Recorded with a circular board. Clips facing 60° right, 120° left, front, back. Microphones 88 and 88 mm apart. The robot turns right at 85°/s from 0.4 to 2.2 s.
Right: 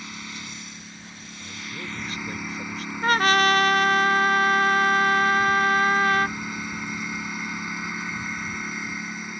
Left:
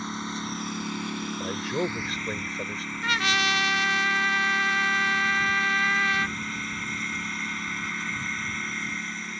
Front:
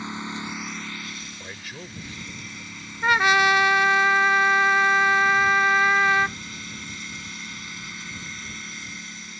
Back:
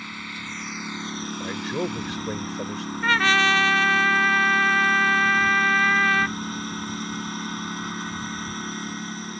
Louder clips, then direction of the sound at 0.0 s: Left 6 dB, front 4 dB; 65° left.